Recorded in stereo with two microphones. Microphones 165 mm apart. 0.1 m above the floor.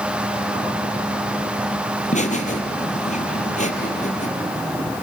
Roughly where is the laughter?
Left.